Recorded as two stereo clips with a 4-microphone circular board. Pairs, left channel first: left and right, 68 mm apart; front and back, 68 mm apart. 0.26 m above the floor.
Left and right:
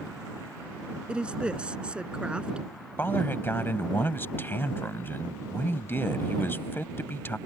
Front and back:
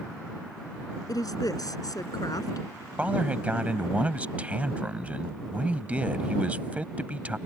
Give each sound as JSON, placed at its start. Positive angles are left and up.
{"t": 1.1, "sound": "a woman speaking", "azimuth_deg": -15}
{"t": 3.0, "sound": "a man speaking", "azimuth_deg": 120}